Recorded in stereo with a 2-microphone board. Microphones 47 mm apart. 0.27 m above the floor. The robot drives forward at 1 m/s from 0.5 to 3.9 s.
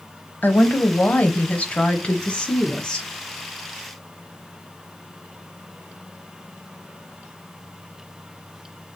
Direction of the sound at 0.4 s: 40° left (ahead or behind).